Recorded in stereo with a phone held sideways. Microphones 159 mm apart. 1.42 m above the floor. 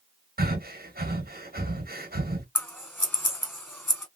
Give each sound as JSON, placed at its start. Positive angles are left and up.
{"t": 0.4, "sound": "breathing", "side_deg": -80, "distance_m": 1.2}
{"t": 2.5, "sound": "scissors", "side_deg": 15, "distance_m": 1.9}